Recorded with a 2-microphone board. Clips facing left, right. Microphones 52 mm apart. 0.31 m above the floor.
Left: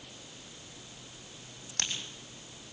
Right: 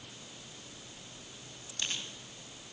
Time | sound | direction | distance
1.7 | a crack | 65° left (ahead or behind) | 7.5 m